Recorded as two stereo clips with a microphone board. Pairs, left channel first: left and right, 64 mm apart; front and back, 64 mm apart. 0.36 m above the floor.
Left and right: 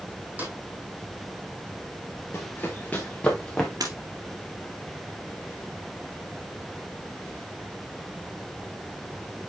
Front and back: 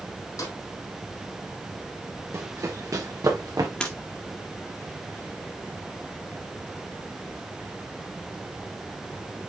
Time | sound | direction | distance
0.4 | a snare drum | 30° right | 4 m
2.3 | running footsteps | 145° left | 2 m
3.8 | breaking glass | 75° right | 2.5 m